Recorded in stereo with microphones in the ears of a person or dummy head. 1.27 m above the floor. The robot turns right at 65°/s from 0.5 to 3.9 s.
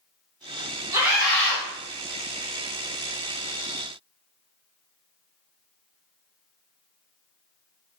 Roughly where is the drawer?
No drawer in this recording.